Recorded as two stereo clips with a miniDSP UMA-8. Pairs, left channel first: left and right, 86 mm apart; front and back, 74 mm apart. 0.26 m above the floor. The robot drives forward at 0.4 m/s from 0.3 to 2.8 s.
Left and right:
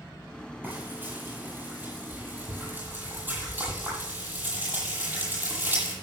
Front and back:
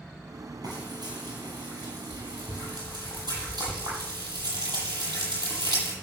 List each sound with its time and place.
0.6 s frying: 160° right, 8 m